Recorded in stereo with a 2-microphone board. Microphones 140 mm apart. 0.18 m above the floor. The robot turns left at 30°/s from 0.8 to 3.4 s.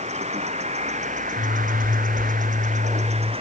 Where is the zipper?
60° right, 8 m; by 3.3 s 120° right, 8 m.